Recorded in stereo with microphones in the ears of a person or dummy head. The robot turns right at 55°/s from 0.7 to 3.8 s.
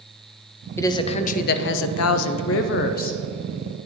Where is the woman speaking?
15° left, 0.6 m; by 3.2 s 145° left, 0.6 m.